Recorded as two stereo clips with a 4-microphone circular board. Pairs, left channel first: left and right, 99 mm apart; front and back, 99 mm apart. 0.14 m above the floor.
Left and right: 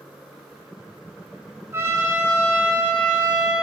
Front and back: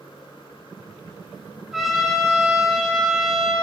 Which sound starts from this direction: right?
A trumpet, at 1.7 s.